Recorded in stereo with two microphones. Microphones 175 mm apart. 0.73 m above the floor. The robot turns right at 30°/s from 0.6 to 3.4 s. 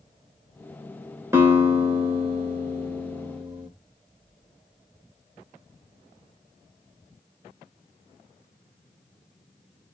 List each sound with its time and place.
1.3 s a guitar: 15° right (ahead or behind), 1.2 m; by 3.7 s 25° right (ahead or behind), 1.2 m